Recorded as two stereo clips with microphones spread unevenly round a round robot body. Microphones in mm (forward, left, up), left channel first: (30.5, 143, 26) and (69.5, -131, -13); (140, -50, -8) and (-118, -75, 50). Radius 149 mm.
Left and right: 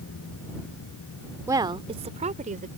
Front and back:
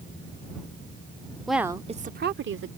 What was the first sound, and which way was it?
A woman speaking, 45° right.